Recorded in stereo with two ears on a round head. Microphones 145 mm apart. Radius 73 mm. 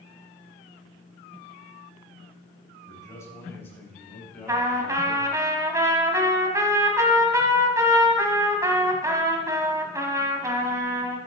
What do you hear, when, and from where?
2.9 s a man speaking: 20° left (ahead or behind), 4 m; by 5.5 s centre (ahead or behind), 5 m
4.5 s a trumpet: 20° right (ahead or behind), 1.8 m